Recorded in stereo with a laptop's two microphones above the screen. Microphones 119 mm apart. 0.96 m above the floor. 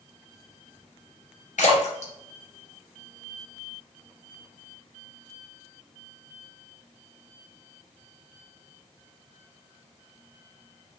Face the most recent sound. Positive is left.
turn(degrees=85)